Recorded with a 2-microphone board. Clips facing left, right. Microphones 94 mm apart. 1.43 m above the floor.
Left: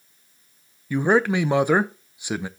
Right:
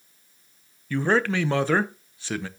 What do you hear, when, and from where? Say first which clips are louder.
0.9 s a man speaking: left 3 dB; 15° left (ahead or behind), 0.5 m